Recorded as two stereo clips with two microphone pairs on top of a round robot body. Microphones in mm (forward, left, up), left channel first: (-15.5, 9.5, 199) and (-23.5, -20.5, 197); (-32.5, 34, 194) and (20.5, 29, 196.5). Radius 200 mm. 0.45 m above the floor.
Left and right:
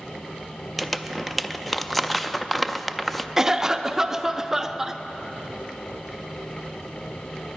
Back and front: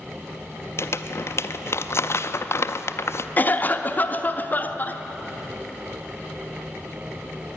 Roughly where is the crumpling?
Behind.